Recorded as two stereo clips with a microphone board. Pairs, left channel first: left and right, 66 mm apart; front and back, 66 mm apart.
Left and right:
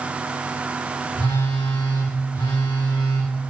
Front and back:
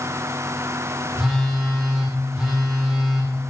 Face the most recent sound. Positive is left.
turn(degrees=95)